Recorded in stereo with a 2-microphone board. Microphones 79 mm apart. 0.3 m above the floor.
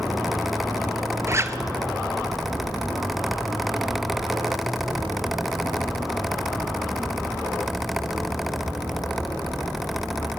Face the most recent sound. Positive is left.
turn(degrees=-35)  # may be behind; listen again after turning